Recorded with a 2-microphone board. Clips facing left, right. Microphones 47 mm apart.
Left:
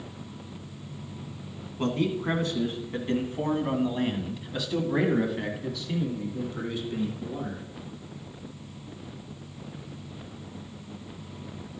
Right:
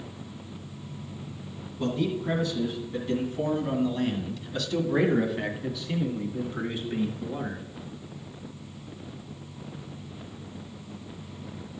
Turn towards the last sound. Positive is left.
turn(degrees=-35)  # may be behind; listen again after turning